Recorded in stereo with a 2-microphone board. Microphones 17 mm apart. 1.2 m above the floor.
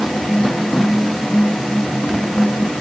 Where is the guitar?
No guitar in this recording.